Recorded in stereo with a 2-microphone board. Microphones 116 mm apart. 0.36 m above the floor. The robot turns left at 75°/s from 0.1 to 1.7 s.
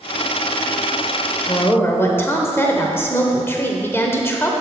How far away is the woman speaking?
About 1.0 m.